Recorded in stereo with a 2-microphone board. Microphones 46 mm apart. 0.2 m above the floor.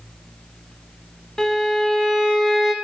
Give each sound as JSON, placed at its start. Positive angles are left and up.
{"t": 1.4, "sound": "a violin", "side_deg": 10, "distance_m": 0.7}